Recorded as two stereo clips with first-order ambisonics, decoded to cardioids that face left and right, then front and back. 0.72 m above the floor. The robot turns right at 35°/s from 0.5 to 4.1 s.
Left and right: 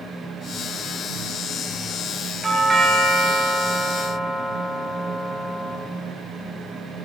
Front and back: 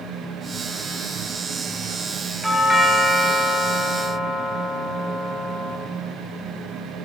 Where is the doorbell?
105° right, 0.8 m; by 5.8 s 45° right, 0.8 m.